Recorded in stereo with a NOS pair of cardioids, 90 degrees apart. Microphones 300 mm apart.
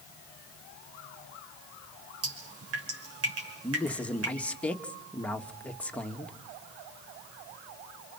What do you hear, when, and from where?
2.2 s dripping: 50° right, 6 m
3.6 s a man speaking: 5° left, 2 m